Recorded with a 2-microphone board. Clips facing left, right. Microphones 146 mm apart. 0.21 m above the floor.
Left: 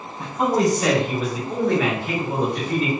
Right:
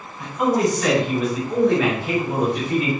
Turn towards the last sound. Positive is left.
turn(degrees=-15)  # may be behind; listen again after turning